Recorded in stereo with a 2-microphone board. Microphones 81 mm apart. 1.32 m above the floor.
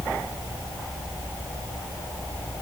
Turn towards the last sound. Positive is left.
No sound to turn to.